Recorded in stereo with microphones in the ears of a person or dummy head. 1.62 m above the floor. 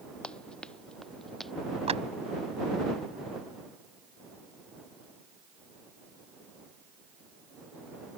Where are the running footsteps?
5° left (ahead or behind); by 1.5 s centre (ahead or behind).